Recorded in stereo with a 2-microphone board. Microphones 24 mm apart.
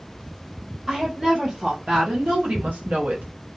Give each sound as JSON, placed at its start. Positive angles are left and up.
{"t": 0.9, "sound": "a woman speaking", "side_deg": -35, "distance_m": 1.2}